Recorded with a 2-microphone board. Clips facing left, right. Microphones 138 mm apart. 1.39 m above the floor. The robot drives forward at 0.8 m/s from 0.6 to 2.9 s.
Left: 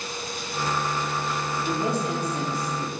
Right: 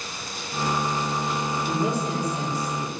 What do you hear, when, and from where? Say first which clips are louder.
1.7 s a woman speaking: left 1 dB; 70° left (ahead or behind), 2.5 m; by 2.9 s 50° left (ahead or behind), 3 m